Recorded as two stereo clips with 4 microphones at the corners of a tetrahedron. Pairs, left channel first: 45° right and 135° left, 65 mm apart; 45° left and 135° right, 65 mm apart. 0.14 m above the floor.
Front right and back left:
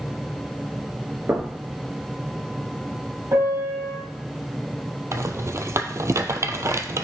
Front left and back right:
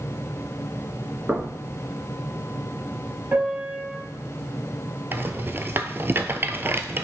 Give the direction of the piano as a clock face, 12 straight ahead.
7 o'clock.